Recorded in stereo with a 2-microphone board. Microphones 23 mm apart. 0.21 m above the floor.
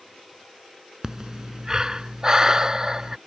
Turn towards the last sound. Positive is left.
turn(degrees=-30)  # may be behind; listen again after turning